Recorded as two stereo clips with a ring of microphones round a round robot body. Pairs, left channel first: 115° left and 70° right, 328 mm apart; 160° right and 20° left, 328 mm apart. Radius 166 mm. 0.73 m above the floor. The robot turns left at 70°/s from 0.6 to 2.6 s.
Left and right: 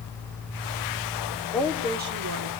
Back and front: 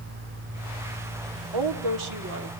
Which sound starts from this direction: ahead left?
A woman speaking, at 1.5 s.